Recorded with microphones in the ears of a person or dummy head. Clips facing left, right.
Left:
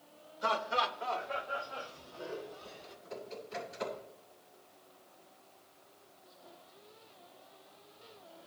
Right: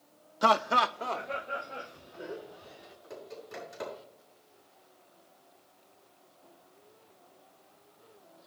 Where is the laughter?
85° right, 0.6 m; by 3.0 s 15° right (ahead or behind), 2 m.